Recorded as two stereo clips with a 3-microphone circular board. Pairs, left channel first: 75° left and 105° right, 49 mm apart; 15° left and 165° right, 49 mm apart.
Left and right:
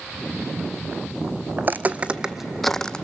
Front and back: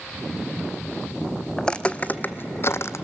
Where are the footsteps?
60° right, 0.8 m; by 3.0 s 5° left, 0.7 m.